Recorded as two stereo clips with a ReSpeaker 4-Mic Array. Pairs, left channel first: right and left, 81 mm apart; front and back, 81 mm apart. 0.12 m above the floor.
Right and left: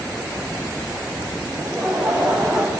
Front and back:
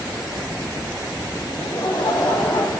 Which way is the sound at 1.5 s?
Straight ahead.